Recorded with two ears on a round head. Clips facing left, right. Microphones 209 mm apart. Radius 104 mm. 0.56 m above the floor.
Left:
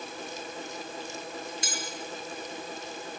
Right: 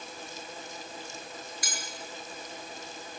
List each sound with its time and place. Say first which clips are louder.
1.6 s cutlery clinking: left 5 dB; 25° left (ahead or behind), 7 m